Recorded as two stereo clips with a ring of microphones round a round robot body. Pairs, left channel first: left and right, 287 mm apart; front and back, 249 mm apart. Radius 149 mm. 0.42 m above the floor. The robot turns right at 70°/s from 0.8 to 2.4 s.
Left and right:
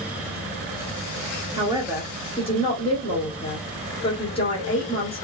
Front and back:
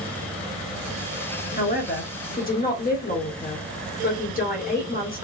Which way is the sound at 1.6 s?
30° right.